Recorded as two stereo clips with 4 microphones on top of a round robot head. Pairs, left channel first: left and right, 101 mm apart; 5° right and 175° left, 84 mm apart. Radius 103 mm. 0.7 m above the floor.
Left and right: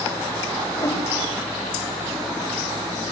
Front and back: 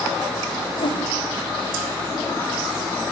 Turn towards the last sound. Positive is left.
turn(degrees=25)